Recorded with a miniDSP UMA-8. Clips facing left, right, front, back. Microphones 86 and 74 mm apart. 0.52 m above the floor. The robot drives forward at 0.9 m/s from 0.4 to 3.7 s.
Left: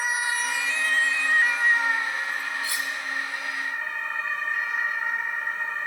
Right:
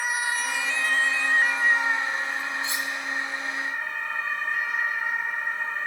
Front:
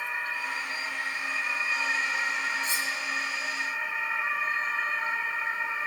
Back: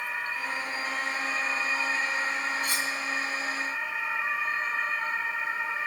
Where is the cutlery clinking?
155° right, 3 m; by 2.9 s 160° right, 3 m.